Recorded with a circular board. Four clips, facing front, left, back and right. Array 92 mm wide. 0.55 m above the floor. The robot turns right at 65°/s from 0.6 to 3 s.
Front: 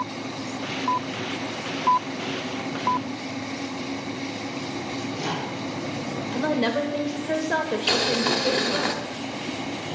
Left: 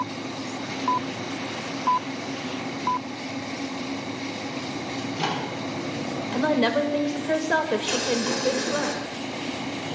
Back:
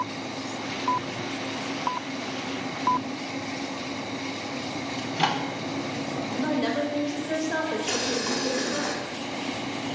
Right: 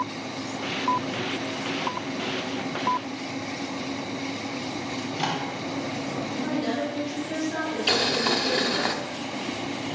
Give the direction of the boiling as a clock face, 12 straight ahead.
1 o'clock.